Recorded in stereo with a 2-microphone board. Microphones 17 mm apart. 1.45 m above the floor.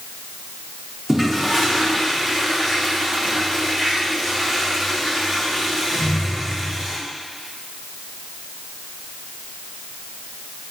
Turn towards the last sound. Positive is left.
turn(degrees=-30)  # may be behind; listen again after turning